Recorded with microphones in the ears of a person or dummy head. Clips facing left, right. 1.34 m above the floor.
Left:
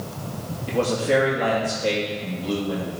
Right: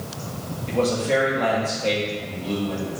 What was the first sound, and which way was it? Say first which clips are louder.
A man speaking: even; 15° left (ahead or behind).